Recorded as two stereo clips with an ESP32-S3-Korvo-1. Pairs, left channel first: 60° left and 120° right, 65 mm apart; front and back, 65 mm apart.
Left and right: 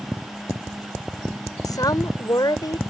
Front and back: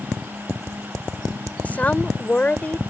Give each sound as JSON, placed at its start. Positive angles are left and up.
{"t": 1.6, "sound": "a woman speaking", "azimuth_deg": 65}